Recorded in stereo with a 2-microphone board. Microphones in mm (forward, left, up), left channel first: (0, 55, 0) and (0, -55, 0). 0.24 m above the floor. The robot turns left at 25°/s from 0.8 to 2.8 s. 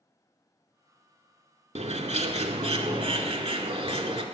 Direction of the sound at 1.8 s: 85° right.